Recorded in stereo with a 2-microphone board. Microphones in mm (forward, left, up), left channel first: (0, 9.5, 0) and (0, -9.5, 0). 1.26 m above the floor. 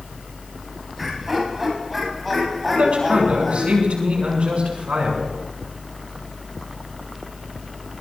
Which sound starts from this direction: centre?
Laughter, at 1.0 s.